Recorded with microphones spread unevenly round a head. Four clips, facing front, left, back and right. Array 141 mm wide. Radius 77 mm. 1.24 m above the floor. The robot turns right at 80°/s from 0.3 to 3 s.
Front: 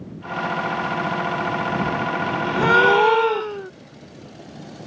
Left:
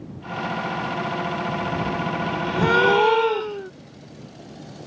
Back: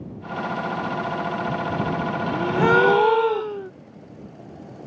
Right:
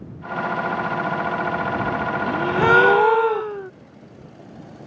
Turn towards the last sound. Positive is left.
turn(degrees=-55)